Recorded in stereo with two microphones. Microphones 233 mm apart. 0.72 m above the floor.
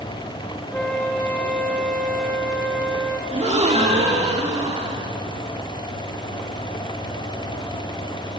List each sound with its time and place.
0.7 s a flute: 5° left (ahead or behind), 2 m
3.3 s a gasp: 30° right (ahead or behind), 1.6 m